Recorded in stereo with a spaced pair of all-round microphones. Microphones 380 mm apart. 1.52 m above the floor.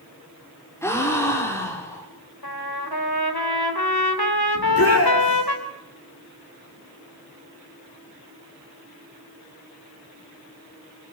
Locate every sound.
0.8 s a gasp: 5° left (ahead or behind), 5.5 m
2.4 s a trumpet: 70° left (ahead or behind), 4 m
4.5 s a shout: 40° left (ahead or behind), 6 m